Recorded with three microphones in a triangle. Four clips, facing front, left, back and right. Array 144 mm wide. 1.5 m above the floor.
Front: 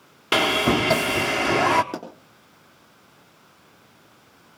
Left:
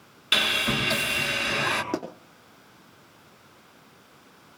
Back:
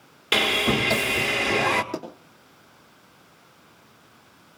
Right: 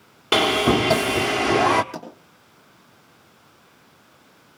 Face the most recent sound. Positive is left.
turn(degrees=65)